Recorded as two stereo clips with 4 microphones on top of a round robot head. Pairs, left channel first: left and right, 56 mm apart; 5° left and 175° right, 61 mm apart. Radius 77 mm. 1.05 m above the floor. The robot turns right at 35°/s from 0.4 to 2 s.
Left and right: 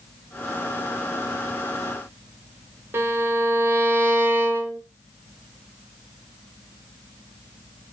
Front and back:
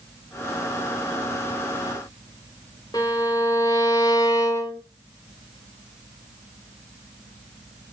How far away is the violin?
About 0.6 m.